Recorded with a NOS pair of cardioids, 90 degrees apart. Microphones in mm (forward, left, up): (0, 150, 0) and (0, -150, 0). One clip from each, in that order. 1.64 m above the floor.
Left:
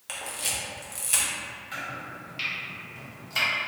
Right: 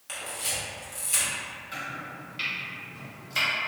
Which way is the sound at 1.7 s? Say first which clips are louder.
Left 1 dB; 10° left.